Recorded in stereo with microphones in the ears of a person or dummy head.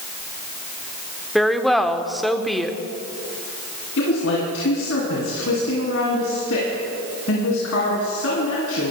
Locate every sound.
1.4 s a woman speaking: 5° right (ahead or behind), 0.9 m
4.0 s a woman speaking: 75° left (ahead or behind), 3 m